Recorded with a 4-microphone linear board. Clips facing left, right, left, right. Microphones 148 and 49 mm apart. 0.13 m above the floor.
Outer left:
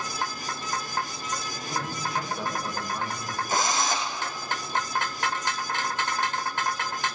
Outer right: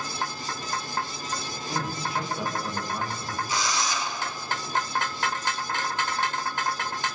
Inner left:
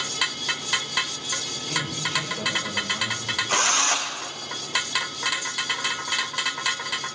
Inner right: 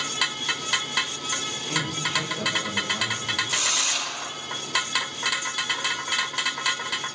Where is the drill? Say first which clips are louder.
Outer left 3 dB, inner left 4 dB; 50° left (ahead or behind), 4.5 m.